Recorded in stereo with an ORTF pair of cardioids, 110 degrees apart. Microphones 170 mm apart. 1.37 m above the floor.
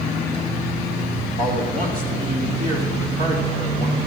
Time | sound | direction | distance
1.4 | a man speaking | 55° right | 4 m